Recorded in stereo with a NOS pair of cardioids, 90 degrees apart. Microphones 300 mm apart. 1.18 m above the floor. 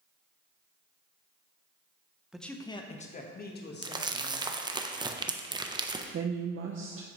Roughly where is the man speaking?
Ahead.